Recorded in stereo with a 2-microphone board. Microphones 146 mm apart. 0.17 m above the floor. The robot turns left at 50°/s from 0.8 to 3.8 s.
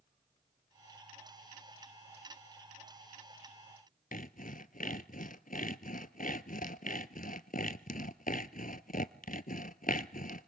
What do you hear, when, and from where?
4.1 s sawing: 70° left (ahead or behind), 0.8 m